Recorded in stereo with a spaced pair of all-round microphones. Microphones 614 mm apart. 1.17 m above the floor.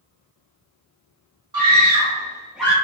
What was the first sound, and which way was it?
A scream, 35° right (ahead or behind).